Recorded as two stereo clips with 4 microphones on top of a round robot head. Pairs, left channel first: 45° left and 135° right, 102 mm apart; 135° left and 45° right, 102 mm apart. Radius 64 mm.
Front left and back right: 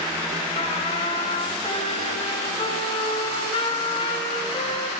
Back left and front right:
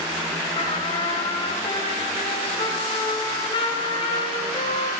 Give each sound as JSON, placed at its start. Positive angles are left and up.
{"t": 0.6, "sound": "a trumpet", "azimuth_deg": 90, "distance_m": 3.0}